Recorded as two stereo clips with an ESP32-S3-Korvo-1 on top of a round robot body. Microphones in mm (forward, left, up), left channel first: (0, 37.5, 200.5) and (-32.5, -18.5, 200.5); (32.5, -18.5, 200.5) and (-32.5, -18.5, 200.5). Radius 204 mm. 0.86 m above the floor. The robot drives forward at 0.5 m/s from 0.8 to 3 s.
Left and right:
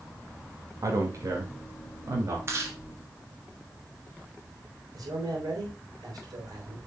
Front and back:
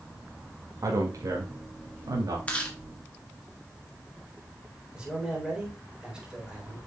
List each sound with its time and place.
0.8 s a man speaking: 150° right, 2.0 m; by 2.4 s 155° right, 2.5 m
2.5 s chewing: 70° right, 2 m; by 2.8 s 75° right, 2 m
4.9 s a man speaking: 105° right, 3.5 m